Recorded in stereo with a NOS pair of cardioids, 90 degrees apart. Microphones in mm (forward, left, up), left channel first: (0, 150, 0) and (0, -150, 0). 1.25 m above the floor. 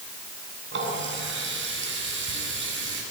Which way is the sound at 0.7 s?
40° right.